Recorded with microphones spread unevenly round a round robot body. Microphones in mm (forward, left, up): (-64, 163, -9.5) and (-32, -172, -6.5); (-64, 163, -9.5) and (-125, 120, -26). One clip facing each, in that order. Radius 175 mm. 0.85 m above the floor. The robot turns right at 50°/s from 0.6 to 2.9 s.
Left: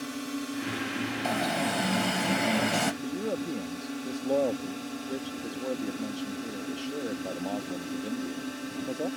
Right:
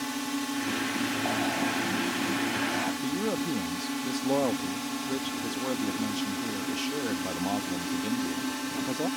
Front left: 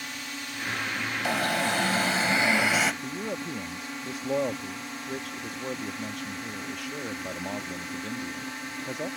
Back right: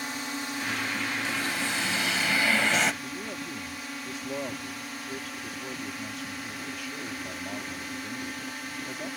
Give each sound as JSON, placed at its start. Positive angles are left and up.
{"t": 0.0, "sound": "a drone", "azimuth_deg": -150}
{"t": 1.2, "sound": "an alarm", "azimuth_deg": 40}
{"t": 3.0, "sound": "a man speaking", "azimuth_deg": -20}